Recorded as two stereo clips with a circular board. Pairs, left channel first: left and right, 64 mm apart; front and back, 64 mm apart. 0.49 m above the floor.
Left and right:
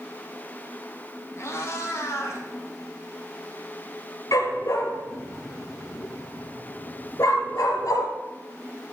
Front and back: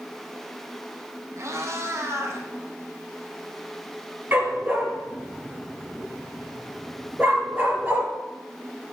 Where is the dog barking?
120° left, 2.5 m.